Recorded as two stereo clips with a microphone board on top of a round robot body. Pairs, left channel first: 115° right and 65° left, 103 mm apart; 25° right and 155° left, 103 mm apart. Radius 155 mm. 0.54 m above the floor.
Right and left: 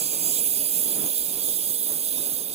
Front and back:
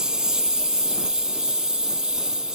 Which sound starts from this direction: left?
A lawn mower, at 0.0 s.